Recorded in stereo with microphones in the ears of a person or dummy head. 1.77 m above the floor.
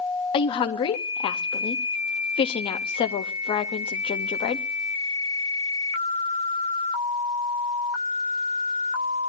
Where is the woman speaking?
20° left (ahead or behind), 0.7 m.